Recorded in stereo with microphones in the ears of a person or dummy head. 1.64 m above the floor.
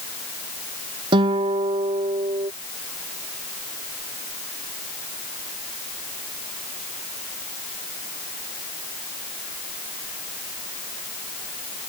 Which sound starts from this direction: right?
A guitar, at 1.1 s.